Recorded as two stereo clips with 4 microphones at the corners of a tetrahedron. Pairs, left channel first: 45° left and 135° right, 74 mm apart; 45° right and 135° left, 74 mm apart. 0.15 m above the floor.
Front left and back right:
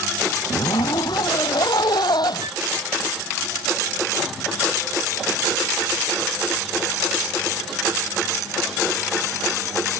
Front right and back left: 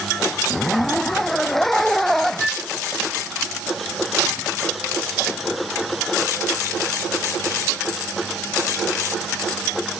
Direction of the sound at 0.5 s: 40° left.